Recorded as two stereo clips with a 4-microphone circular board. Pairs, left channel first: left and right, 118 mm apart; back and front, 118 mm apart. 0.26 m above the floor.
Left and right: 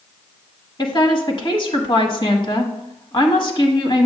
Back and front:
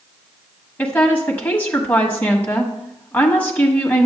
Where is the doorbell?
No doorbell in this recording.